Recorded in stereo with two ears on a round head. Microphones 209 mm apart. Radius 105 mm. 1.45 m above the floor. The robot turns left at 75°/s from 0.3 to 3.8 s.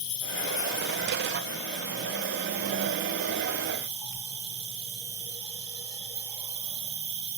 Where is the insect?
110° left, 10 m; by 7.4 s 155° right, 10 m.